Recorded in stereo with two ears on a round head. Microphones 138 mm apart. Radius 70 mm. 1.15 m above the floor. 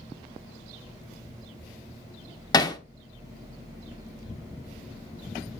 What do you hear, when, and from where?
2.5 s hammering: 25° left (ahead or behind), 1.2 m